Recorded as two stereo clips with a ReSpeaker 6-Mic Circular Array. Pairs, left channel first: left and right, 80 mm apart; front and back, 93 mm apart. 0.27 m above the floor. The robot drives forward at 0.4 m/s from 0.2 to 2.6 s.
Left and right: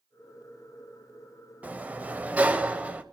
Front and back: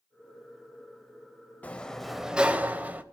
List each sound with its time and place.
1.6 s a sliding door: 50° right, 0.7 m; by 3.0 s 135° right, 0.7 m